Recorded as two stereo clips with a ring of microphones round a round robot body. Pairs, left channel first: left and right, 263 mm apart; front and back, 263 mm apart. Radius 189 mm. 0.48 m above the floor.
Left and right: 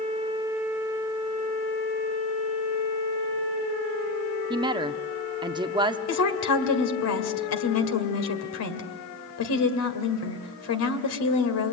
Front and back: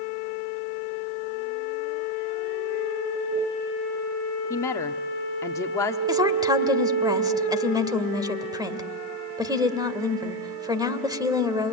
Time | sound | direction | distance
4.5 | a woman speaking | 55° right | 0.8 m
6.1 | a woman speaking | 105° left | 2 m